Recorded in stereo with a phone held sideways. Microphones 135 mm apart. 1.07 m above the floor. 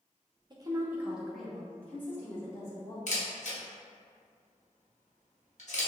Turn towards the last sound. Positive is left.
turn(degrees=60)  # may be behind; listen again after turning